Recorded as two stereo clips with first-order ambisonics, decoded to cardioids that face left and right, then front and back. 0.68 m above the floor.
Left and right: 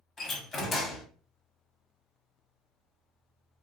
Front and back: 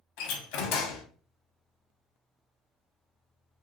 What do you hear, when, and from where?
0.2 s a door slam: 20° left, 0.7 m